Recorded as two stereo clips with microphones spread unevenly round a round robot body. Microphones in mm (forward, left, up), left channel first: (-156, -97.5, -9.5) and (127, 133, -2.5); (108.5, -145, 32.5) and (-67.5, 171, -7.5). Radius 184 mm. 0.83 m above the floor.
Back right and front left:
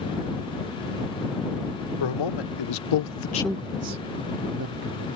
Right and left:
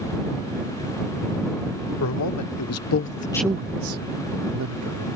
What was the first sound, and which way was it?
A man speaking, 110° right.